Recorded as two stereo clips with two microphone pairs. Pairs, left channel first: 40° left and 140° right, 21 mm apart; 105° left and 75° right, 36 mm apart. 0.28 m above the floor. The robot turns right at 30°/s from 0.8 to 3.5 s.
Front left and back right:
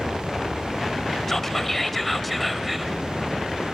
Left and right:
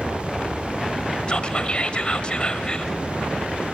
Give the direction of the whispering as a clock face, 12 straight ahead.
9 o'clock.